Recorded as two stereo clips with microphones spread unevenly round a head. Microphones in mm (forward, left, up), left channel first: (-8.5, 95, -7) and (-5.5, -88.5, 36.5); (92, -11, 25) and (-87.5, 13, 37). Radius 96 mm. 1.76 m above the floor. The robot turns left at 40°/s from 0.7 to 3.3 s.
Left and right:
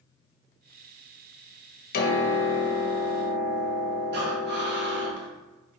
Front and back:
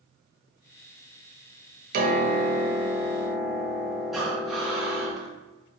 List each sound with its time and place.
1.9 s a piano: 140° left, 0.7 m; by 5.1 s 85° left, 0.7 m
4.1 s breathing: 100° right, 0.9 m